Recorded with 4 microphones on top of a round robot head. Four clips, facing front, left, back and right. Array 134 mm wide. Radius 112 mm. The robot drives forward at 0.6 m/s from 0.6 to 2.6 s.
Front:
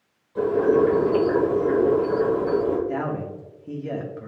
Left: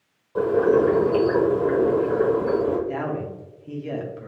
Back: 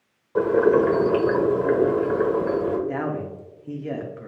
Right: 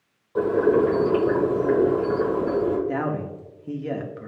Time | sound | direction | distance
0.3 | boiling | 175° right | 1.1 m
2.9 | a man speaking | 105° right | 0.9 m